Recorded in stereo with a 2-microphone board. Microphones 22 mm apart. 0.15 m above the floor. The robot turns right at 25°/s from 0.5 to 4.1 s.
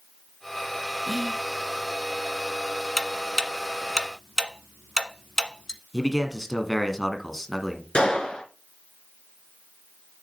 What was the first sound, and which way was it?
Whispering, 10° left (ahead or behind).